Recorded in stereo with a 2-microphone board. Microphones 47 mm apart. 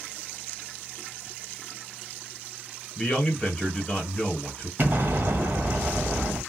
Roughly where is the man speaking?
Left.